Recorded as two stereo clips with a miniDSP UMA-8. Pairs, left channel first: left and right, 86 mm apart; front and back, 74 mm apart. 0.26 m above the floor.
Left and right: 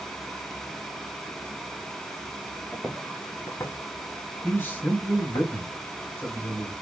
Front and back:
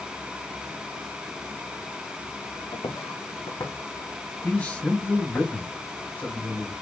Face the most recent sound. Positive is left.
turn(degrees=50)